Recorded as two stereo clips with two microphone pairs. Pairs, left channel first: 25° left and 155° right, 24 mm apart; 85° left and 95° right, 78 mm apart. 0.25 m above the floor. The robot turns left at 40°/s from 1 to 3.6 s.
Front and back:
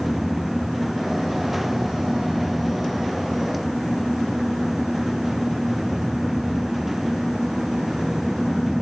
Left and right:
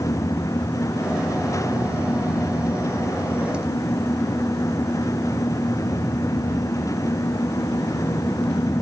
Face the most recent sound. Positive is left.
No sound to turn to.